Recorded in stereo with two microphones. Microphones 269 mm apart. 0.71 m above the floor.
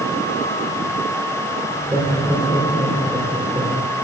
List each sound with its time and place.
1.7 s laughter: 15° right (ahead or behind), 2 m